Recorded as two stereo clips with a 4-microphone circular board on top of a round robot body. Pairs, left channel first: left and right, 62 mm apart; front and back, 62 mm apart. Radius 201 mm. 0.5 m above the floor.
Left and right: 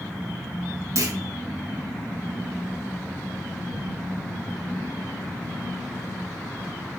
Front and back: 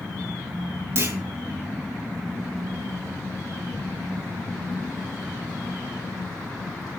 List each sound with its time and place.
0.9 s a clunk: 130° right, 4 m